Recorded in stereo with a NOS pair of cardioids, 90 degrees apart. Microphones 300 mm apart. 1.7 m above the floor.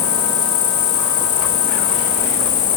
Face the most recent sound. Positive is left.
turn(degrees=70)